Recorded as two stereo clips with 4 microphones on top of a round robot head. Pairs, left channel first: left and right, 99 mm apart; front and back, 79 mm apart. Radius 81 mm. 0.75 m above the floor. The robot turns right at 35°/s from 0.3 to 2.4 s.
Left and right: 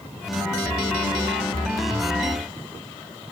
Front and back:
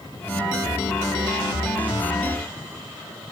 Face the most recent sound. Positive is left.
No sound to turn to.